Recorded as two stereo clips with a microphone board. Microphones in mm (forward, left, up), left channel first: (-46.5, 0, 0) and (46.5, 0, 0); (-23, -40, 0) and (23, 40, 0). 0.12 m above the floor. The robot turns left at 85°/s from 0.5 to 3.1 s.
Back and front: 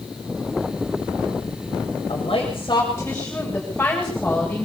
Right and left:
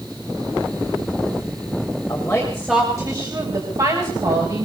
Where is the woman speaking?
170° right, 9.5 m; by 4.7 s 105° left, 9.5 m.